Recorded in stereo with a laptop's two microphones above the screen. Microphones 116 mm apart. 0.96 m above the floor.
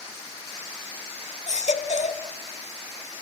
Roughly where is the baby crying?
Left.